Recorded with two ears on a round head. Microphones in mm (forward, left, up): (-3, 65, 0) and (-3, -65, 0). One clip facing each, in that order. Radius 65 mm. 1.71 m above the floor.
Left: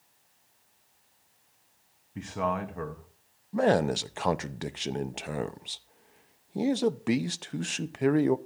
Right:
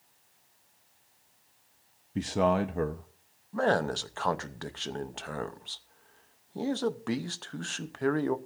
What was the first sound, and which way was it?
A man speaking, 40° right (ahead or behind).